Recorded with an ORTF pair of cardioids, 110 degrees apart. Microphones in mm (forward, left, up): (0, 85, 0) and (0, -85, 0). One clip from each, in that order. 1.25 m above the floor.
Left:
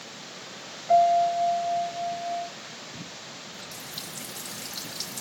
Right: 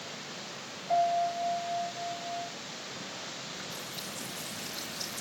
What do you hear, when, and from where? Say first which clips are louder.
0.9 s a piano: left 8 dB; 60° left, 3.5 m
3.5 s a running tap: left 1 dB; 70° left, 6.5 m